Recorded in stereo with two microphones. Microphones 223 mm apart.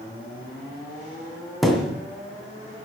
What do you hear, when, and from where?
1.6 s a thud: centre (ahead or behind), 2 m